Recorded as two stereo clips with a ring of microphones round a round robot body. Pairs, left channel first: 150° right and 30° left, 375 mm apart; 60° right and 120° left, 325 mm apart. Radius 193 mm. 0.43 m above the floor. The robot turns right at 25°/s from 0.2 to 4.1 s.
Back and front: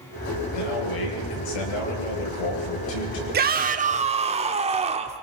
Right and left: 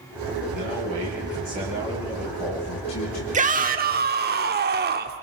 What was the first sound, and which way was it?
A man speaking, 165° left.